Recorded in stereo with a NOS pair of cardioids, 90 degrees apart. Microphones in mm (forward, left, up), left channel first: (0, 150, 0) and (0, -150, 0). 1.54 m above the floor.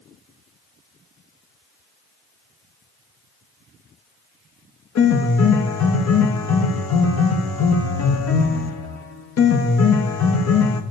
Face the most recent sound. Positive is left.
turn(degrees=55)